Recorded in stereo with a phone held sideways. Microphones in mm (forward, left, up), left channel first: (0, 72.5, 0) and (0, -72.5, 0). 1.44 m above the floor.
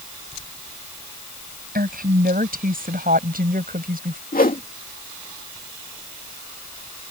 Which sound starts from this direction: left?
A whoosh, at 4.3 s.